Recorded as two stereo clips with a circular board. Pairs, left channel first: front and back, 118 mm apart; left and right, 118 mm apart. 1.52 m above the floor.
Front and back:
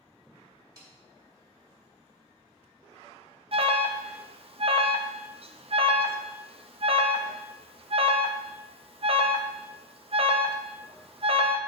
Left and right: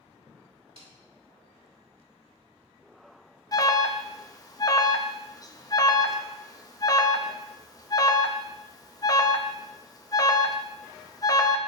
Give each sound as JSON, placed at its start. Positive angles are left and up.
{"t": 0.8, "sound": "a snare drum", "azimuth_deg": -120, "distance_m": 2.5}
{"t": 3.5, "sound": "an alarm", "azimuth_deg": 145, "distance_m": 0.6}